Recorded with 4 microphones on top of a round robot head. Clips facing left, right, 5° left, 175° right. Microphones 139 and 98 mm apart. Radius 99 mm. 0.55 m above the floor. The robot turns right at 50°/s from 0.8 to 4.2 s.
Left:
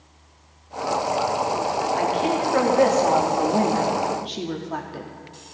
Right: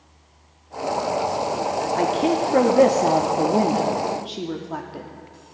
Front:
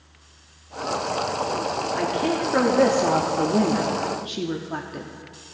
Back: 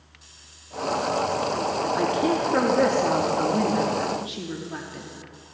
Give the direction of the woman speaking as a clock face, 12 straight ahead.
4 o'clock.